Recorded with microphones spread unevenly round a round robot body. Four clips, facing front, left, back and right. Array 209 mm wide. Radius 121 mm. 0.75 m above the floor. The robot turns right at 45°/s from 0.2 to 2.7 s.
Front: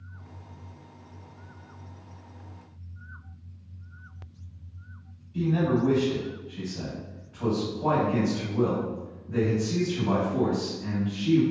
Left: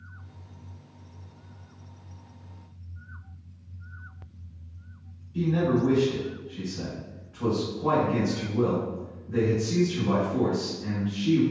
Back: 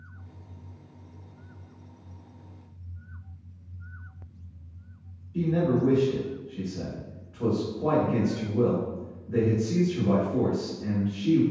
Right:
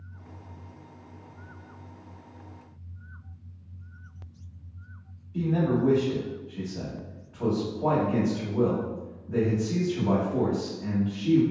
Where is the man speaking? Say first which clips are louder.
Left 1 dB, even; 130° right, 1.6 m.